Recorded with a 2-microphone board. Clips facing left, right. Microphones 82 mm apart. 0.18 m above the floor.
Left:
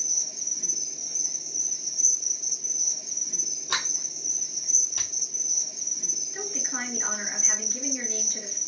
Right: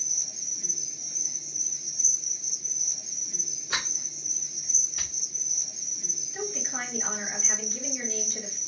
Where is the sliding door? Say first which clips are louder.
Left 2 dB; 75° left (ahead or behind), 1.5 m.